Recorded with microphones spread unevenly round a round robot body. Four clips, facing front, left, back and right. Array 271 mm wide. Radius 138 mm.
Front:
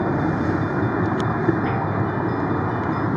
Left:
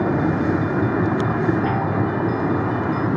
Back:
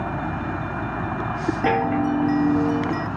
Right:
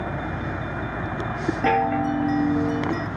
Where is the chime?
165° right.